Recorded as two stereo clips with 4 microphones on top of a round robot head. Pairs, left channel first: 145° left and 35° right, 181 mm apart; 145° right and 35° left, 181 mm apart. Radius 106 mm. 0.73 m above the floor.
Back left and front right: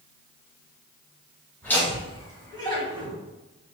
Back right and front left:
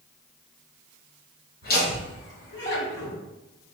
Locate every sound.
1.6 s laughter: 135° right, 2 m; by 3.1 s 150° right, 2.5 m